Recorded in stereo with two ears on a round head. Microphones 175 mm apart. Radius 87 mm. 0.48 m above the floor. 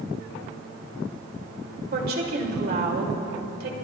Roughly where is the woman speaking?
Right.